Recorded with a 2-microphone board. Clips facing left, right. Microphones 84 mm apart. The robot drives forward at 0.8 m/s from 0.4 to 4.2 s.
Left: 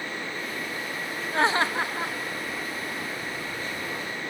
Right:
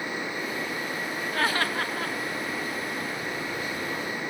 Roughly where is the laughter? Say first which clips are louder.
Left 4 dB; left.